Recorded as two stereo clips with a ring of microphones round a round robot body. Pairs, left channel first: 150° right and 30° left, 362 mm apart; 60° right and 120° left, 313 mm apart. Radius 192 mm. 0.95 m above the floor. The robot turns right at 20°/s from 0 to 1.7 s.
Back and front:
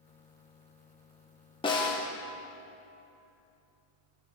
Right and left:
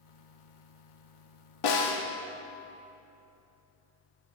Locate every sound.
1.6 s a snare drum: 75° right, 1.2 m; by 2.0 s 70° right, 1.2 m